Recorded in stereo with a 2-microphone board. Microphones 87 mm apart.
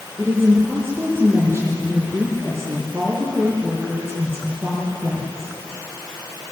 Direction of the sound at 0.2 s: 25° right (ahead or behind).